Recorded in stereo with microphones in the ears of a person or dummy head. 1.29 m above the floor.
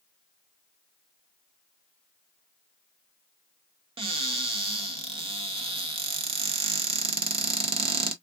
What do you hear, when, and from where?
4.0 s a cupboard door: 25° right (ahead or behind), 0.5 m